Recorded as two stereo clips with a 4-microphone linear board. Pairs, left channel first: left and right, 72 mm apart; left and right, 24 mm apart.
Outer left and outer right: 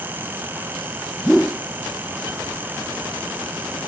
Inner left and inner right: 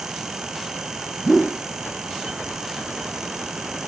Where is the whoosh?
Centre (ahead or behind).